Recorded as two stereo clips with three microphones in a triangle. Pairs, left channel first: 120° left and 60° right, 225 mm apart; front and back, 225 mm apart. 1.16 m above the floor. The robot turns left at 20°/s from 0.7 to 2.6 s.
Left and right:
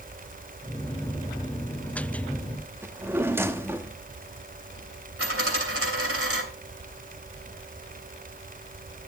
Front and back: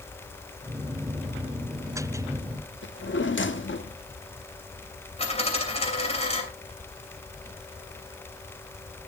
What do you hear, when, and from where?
2.8 s a drawer: 20° left, 1.0 m
5.2 s a dropped coin: 65° right, 3 m